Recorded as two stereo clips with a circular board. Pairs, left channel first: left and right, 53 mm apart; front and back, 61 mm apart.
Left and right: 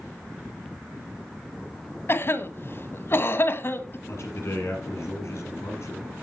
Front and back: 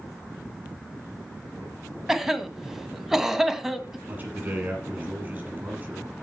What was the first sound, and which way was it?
A cough, 95° left.